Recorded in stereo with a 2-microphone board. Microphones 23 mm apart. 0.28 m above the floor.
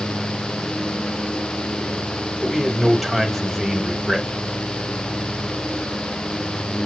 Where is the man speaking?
5° left (ahead or behind), 1.4 m.